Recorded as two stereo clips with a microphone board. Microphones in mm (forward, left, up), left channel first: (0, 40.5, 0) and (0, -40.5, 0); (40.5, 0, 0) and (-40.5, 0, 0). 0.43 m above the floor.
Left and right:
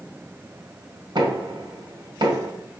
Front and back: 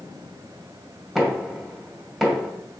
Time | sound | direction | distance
1.1 | knocking | 90° right | 2 m